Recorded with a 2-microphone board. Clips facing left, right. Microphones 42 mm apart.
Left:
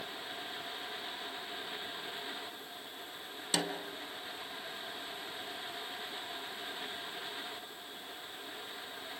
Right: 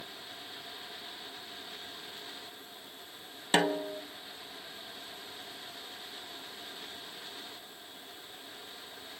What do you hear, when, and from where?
3.5 s a snare drum: 40° right (ahead or behind), 1.2 m